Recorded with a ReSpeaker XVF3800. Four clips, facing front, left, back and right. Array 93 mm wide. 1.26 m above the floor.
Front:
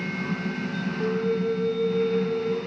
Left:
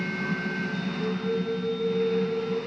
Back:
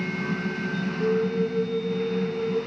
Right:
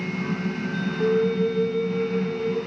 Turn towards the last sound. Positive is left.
turn(degrees=-80)